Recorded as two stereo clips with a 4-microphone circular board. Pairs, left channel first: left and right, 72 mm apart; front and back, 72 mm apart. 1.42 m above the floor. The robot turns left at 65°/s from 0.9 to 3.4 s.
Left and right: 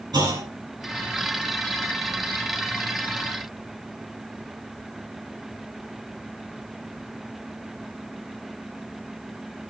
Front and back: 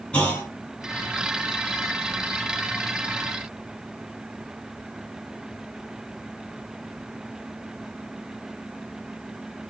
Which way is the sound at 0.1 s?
75° right.